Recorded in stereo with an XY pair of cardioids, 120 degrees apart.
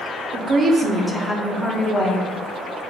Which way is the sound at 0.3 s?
55° right.